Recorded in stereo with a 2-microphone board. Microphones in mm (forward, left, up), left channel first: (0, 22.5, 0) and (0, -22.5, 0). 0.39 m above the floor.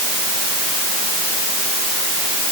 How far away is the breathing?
I don't hear breathing.